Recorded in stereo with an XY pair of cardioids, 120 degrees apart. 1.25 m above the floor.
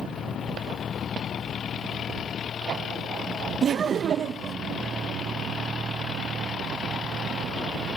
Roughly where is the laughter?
Ahead right.